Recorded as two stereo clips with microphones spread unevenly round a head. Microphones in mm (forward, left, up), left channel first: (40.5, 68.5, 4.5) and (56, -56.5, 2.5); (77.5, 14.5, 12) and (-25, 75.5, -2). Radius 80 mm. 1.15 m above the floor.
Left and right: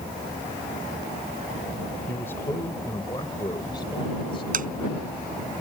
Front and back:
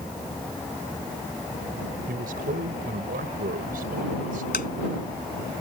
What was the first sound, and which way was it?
A man speaking, 175° left.